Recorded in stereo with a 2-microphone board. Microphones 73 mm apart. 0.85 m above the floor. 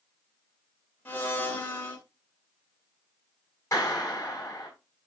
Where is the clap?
35° left (ahead or behind), 6 m.